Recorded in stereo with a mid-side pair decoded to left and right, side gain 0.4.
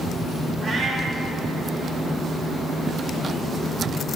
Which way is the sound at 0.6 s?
65° right.